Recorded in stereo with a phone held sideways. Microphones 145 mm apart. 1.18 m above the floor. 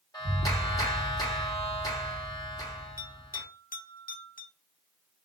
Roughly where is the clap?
Left.